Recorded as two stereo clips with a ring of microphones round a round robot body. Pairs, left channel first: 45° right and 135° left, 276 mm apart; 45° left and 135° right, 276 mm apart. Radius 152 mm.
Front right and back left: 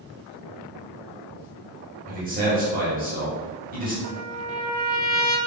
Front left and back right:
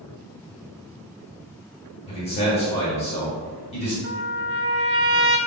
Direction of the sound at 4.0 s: 170° left.